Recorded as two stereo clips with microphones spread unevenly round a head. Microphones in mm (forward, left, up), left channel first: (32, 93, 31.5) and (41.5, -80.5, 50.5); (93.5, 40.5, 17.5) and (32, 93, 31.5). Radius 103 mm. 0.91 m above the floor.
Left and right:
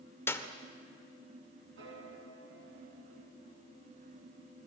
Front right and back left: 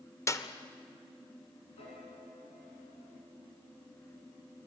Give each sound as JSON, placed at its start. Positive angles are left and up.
{"t": 0.3, "sound": "a clap", "azimuth_deg": 15, "distance_m": 2.0}
{"t": 1.8, "sound": "a piano", "azimuth_deg": -65, "distance_m": 5.5}